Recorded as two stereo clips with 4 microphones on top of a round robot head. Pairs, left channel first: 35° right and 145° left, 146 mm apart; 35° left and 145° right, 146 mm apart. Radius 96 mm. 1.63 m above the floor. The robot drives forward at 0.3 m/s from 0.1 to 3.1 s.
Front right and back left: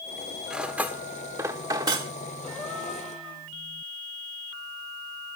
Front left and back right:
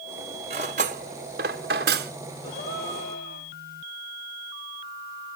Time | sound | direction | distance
0.5 | cutlery clinking | 130° right | 0.9 m
2.4 | a gasp | 50° left | 9.5 m